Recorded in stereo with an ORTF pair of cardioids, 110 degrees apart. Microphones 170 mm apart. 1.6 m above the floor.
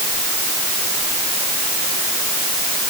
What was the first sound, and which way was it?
Only background noise.